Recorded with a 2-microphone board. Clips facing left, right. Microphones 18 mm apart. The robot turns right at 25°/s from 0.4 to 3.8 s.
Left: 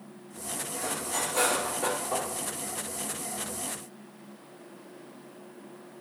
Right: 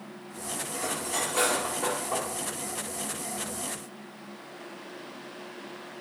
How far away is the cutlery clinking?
About 5 m.